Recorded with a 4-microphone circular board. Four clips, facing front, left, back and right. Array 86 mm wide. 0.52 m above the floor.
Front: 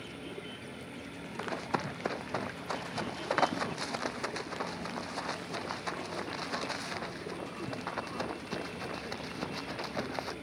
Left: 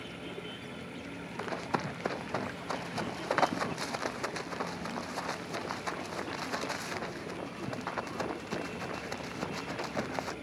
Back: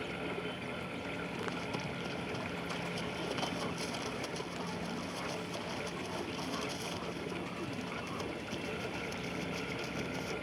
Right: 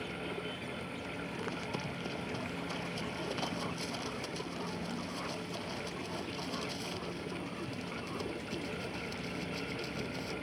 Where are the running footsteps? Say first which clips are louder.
Left 8 dB, front 9 dB; 45° left; by 10.3 s 60° left.